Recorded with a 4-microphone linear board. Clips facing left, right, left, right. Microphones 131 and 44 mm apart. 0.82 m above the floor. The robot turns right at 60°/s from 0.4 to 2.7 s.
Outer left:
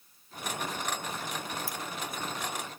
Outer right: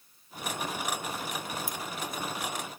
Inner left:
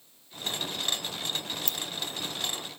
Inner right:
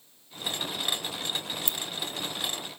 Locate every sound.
1.7 s keys jangling: 20° right (ahead or behind), 0.6 m; by 1.8 s 15° right (ahead or behind), 0.6 m